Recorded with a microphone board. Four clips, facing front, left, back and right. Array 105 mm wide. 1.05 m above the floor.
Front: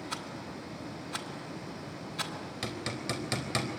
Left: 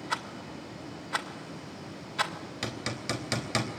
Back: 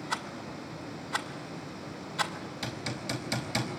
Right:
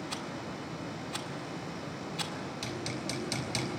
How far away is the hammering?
About 3.5 m.